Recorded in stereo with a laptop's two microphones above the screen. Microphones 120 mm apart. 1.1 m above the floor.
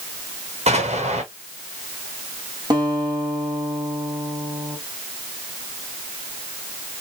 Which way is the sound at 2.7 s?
35° right (ahead or behind).